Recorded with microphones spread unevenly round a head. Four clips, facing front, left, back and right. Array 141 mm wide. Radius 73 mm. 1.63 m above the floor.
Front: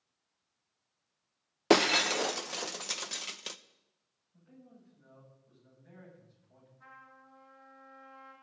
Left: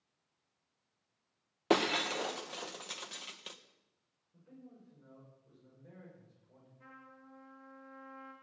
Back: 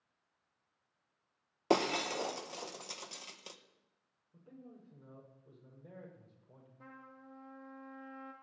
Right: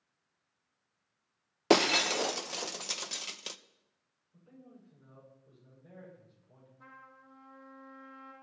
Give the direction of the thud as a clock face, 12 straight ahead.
I don't hear a thud.